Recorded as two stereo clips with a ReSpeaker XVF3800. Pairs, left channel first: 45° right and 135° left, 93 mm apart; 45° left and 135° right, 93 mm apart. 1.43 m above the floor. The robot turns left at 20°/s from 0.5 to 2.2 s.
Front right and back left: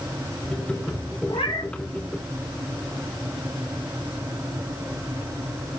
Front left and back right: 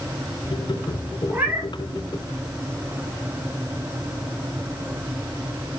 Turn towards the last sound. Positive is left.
turn(degrees=-80)